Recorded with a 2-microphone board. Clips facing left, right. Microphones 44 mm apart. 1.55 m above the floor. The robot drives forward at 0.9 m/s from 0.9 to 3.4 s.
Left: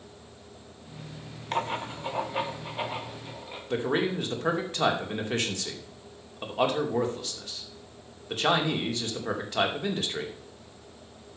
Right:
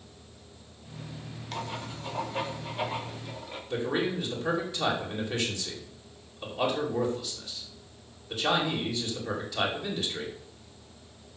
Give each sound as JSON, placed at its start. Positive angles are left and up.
{"t": 1.5, "sound": "writing", "side_deg": 40, "distance_m": 0.5}
{"t": 3.7, "sound": "a man speaking", "side_deg": 45, "distance_m": 2.5}